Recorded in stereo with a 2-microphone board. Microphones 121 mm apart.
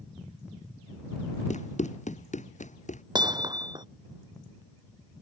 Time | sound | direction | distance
1.5 | running footsteps | 70° left (ahead or behind) | ?
3.1 | hammering | 35° right (ahead or behind) | ?